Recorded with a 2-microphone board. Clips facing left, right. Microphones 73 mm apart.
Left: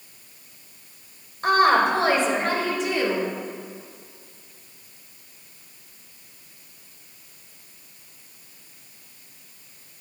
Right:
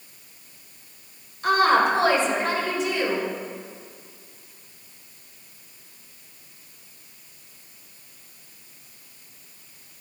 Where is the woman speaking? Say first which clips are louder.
Left 1 dB; 45° left (ahead or behind), 2 m; by 3.3 s 55° left (ahead or behind), 3 m.